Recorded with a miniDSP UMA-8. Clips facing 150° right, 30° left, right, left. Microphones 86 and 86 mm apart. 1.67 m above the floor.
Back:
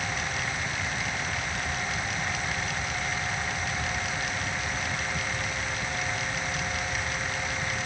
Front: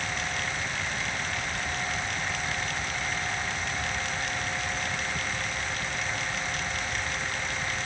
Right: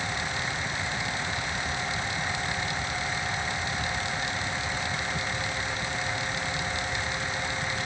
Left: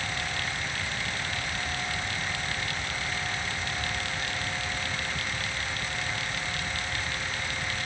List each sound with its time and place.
Only background noise.